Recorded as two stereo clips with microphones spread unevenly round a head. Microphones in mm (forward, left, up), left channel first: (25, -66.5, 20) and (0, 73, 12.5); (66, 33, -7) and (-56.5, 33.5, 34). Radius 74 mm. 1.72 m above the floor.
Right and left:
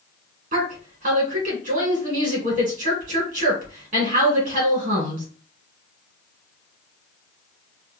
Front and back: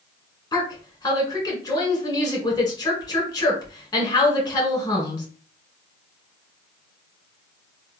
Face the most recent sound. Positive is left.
turn(degrees=65)